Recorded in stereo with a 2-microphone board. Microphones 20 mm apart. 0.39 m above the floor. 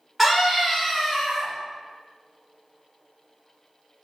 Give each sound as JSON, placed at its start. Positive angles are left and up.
{"t": 0.2, "sound": "a scream", "side_deg": -15, "distance_m": 0.9}